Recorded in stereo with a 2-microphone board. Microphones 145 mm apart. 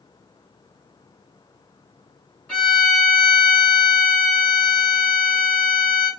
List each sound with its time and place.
2.5 s a violin: 5° left (ahead or behind), 2 m